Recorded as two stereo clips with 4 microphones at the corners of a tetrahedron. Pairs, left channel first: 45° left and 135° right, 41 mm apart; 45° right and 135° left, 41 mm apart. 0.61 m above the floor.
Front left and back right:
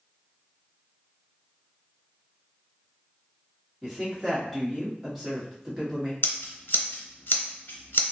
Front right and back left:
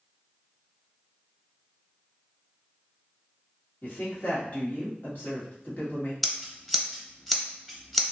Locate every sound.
3.8 s a woman speaking: 50° right, 1.5 m
6.2 s scissors: 40° left, 0.7 m